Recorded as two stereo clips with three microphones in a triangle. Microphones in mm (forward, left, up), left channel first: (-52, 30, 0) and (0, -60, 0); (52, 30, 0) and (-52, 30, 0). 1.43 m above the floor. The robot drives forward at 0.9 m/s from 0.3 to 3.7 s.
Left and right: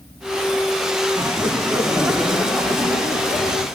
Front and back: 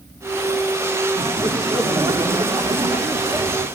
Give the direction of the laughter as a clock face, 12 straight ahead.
4 o'clock.